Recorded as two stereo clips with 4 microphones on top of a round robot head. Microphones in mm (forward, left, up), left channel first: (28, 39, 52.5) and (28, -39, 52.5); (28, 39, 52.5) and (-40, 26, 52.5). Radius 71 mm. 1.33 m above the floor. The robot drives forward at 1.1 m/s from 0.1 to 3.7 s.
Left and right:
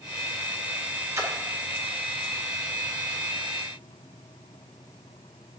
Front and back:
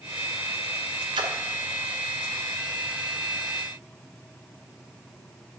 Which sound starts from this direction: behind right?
A splash, at 1.1 s.